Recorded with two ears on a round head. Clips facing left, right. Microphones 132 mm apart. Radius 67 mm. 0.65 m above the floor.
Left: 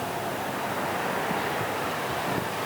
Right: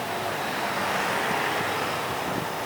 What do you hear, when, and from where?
Only background noise.